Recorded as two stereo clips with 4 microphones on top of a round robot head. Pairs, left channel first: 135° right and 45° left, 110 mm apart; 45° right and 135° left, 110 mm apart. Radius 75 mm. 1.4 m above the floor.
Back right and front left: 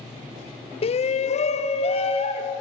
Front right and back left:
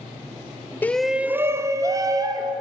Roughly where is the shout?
Behind right.